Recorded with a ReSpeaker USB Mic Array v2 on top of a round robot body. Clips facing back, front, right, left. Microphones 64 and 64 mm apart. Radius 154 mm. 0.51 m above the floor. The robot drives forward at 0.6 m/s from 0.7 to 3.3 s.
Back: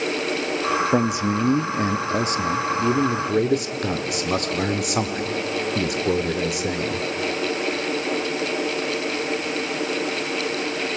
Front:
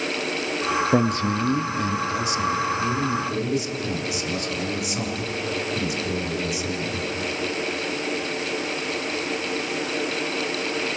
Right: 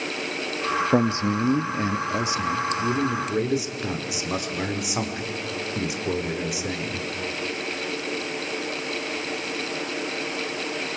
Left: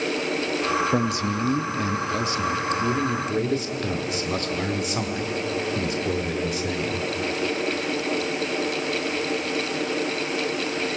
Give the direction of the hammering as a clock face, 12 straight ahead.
No hammering in this recording.